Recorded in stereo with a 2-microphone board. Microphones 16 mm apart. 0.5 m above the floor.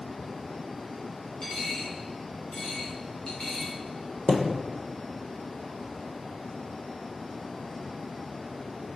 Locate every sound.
1.4 s a dropped coin: 50° left (ahead or behind), 6 m
4.3 s a thud: 65° left (ahead or behind), 1.4 m